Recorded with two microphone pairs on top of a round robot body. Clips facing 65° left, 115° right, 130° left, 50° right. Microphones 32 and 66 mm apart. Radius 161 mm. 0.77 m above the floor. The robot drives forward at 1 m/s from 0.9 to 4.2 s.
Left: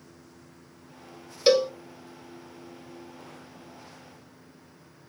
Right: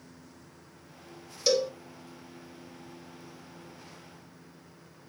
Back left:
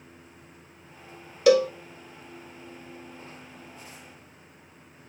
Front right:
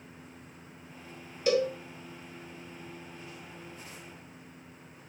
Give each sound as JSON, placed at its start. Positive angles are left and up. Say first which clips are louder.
{"t": 1.5, "sound": "a cowbell", "louder": "left 6 dB, back left 8 dB", "azimuth_deg": 125, "distance_m": 0.8}